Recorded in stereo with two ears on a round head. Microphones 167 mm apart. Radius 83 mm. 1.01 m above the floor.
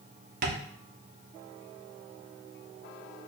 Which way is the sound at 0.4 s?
50° right (ahead or behind).